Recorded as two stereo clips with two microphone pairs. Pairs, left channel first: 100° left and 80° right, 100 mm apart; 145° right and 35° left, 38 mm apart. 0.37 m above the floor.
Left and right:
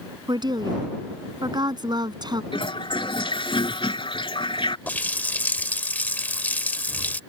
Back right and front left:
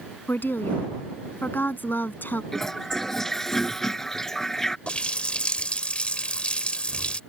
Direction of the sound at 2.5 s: 135° left.